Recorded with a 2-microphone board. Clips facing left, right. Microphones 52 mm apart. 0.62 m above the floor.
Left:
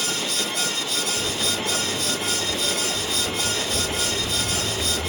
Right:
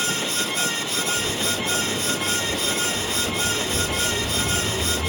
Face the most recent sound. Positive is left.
turn(degrees=10)  # may be behind; listen again after turning